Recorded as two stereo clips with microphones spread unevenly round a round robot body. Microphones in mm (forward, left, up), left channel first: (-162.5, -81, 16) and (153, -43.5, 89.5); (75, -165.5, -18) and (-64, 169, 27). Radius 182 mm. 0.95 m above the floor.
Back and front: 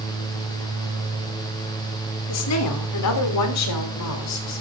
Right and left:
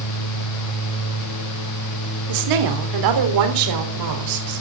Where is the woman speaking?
150° left, 3 m.